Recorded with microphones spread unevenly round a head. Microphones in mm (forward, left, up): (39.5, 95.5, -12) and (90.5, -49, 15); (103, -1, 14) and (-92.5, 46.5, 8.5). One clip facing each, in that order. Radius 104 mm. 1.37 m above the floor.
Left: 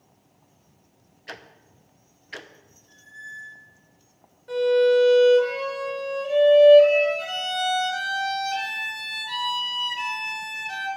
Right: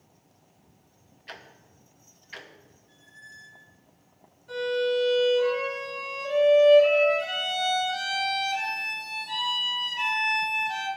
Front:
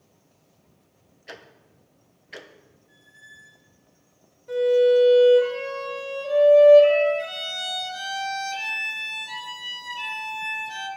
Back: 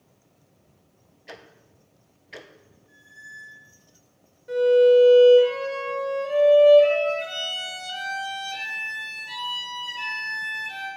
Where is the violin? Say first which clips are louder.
Left 8 dB, back 2 dB; 85° left, 5 m.